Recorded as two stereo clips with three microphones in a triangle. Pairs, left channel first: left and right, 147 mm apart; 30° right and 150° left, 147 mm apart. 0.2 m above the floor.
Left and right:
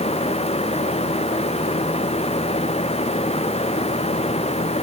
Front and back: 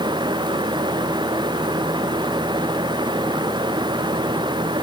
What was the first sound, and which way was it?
Only background noise.